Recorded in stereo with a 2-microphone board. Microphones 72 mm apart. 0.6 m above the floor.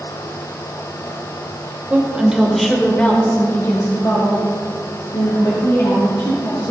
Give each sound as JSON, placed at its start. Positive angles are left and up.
{"t": 1.9, "sound": "a woman speaking", "side_deg": -20, "distance_m": 2.5}